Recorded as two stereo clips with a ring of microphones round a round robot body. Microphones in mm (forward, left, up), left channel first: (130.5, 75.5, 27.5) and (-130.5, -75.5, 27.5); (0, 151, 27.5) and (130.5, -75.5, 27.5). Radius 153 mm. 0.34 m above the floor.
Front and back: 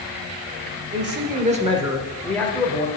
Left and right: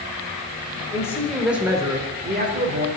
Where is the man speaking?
170° right, 1.8 m; by 2.9 s 35° right, 2.0 m.